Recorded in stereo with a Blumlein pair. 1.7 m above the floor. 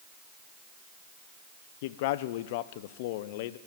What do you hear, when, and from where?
1.8 s a man speaking: 50° left, 1.1 m